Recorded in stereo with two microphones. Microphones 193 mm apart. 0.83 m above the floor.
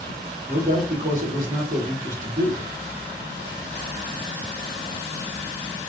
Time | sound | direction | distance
0.5 | a man speaking | 45° right (ahead or behind) | 2 m